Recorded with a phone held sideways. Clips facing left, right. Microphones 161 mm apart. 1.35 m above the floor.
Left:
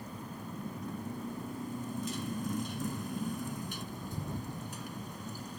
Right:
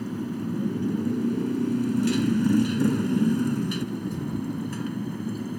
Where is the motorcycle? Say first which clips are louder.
Right 14 dB; 80° right; by 5.6 s 65° right (ahead or behind).